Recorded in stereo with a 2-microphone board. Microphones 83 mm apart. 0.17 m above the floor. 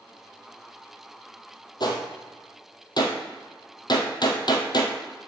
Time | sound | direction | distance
1.8 | a gunshot | 55° left (ahead or behind) | 1.2 m